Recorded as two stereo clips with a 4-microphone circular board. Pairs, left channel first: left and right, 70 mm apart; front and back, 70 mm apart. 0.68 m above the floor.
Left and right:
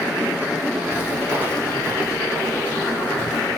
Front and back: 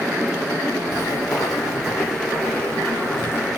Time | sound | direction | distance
0.9 | footsteps | 20° right | 1.7 m